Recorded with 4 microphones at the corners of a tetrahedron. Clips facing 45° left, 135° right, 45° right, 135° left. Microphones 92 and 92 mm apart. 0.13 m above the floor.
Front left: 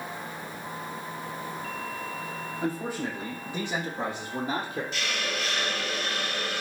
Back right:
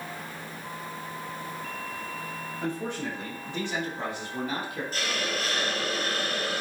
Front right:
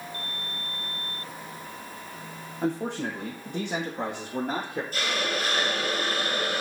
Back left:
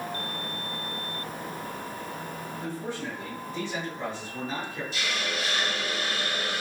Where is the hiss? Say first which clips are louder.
Back right 1 dB, front right 3 dB; 85° right, 1.8 m.